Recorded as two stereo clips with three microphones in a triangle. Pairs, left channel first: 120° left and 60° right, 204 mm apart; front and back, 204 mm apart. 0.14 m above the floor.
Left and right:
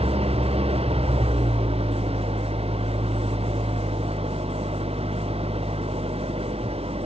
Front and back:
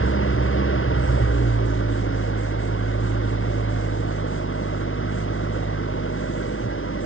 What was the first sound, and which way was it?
An engine running, straight ahead.